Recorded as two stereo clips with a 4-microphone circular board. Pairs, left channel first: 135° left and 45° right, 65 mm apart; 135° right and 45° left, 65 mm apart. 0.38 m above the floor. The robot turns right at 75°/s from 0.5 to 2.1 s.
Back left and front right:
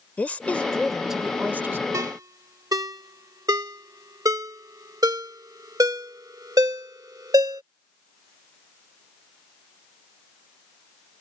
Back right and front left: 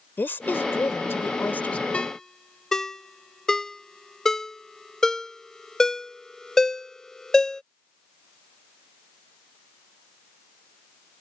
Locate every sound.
0.2 s a woman speaking: 170° right; by 1.8 s 70° right
1.9 s a ringtone: 65° right; by 7.6 s 55° right